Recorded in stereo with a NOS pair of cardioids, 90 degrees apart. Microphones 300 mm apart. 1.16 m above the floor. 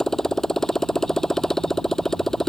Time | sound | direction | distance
0.0 | a motorcycle | straight ahead | ?